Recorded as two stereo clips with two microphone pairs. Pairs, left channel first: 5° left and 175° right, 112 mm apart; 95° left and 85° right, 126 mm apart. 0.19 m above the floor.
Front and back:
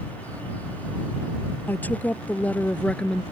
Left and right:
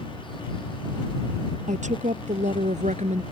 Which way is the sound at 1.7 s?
70° right.